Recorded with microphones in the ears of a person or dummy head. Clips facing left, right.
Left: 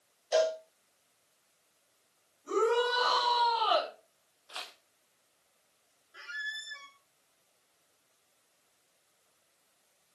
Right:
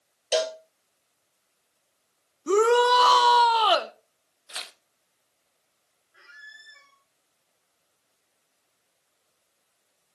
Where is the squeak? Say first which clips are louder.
Left 7 dB; 60° left (ahead or behind), 2 m.